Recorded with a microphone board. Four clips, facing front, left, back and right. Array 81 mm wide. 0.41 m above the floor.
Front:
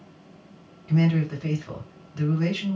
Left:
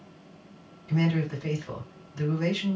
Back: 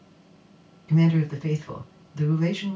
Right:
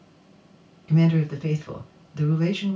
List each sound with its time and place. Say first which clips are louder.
0.9 s a man speaking: right 5 dB, back 1 dB; 55° right, 2.5 m